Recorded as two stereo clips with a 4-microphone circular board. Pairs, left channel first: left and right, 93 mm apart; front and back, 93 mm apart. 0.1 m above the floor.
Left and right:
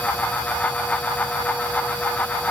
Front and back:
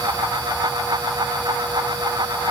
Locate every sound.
Only background noise.